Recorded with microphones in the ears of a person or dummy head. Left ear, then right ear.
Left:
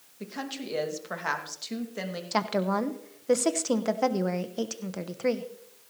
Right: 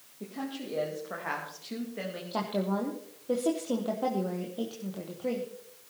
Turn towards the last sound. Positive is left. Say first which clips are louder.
# left 5 dB
turn(degrees=55)  # may be behind; listen again after turning